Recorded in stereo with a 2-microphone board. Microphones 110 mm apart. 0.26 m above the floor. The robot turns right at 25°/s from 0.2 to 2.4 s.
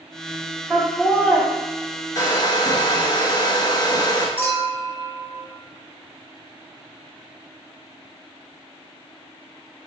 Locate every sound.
0.7 s laughter: 10° left (ahead or behind), 1.9 m; by 1.4 s 20° left (ahead or behind), 1.9 m
2.1 s a hair dryer: 35° left (ahead or behind), 0.7 m; by 4.3 s 40° left (ahead or behind), 0.7 m
4.4 s a clink: 20° left (ahead or behind), 1.0 m